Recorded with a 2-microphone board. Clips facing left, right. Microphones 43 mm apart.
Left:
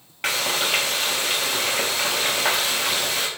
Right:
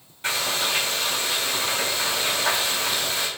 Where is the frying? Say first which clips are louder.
Left 2 dB; 75° left (ahead or behind), 0.7 m.